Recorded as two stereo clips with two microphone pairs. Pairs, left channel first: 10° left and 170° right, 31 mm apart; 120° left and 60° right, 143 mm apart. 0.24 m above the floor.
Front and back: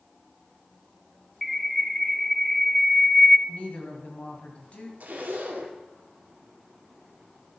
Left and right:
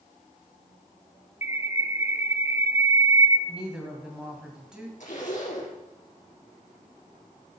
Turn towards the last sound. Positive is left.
turn(degrees=150)